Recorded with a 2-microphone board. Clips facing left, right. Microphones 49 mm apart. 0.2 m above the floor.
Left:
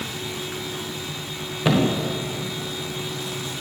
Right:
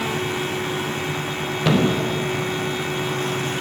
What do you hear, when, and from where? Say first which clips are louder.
1.6 s a thud: right 1 dB; 10° left (ahead or behind), 5 m